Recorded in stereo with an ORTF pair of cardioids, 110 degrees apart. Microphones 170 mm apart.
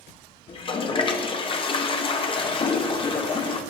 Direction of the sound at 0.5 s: 30° left.